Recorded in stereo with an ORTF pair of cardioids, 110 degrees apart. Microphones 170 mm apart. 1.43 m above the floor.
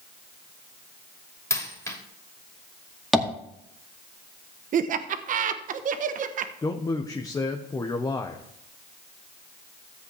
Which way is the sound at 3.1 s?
Straight ahead.